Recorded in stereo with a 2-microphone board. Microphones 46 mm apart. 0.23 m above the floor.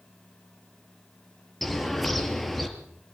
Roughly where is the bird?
Centre.